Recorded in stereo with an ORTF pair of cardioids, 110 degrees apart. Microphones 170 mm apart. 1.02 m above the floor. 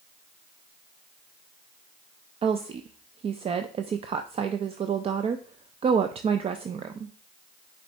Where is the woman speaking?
35° right, 0.5 m.